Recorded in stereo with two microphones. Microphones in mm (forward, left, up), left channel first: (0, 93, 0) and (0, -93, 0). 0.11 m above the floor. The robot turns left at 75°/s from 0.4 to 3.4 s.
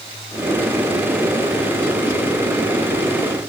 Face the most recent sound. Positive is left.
No sound to turn to.